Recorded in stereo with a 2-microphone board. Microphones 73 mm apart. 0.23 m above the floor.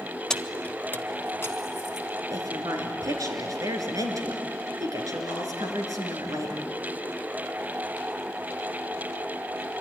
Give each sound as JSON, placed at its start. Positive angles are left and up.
{"t": 0.3, "sound": "keys jangling", "side_deg": 10, "distance_m": 0.6}
{"t": 2.3, "sound": "a woman speaking", "side_deg": -55, "distance_m": 3.5}